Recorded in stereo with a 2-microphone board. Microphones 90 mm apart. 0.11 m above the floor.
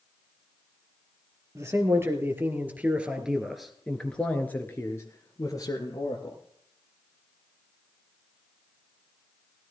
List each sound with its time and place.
1.6 s a man speaking: 35° right (ahead or behind), 3 m; by 6.4 s 50° left (ahead or behind), 3 m